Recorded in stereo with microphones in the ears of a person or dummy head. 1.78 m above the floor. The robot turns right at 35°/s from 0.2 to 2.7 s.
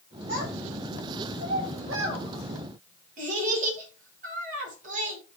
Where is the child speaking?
50° right (ahead or behind), 5.5 m; by 5.2 s 45° right (ahead or behind), 5.5 m.